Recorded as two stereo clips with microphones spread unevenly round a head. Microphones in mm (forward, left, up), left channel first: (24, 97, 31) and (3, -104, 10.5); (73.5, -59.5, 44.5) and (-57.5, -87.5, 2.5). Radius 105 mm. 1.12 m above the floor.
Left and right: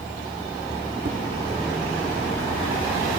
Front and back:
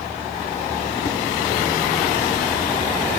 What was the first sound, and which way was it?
Tapping, 40° right.